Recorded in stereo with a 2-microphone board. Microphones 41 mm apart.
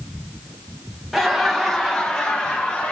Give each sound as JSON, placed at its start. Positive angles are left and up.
{"t": 1.1, "sound": "laughter", "side_deg": 0, "distance_m": 1.8}